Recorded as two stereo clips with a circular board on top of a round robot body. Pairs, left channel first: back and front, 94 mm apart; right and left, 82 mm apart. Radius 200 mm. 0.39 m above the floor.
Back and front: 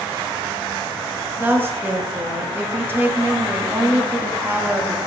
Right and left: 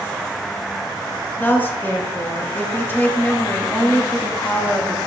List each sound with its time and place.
1.4 s a woman speaking: 45° right, 1.3 m